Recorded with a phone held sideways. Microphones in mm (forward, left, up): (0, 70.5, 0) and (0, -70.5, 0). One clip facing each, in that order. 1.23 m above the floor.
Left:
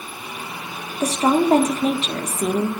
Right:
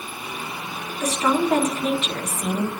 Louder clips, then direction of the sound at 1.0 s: Left 4 dB; 35° left (ahead or behind).